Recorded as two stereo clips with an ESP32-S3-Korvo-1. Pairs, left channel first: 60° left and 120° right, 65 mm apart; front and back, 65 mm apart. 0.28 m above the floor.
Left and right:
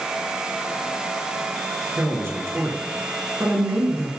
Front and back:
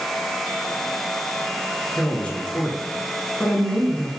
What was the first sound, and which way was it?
A man speaking, 70° right.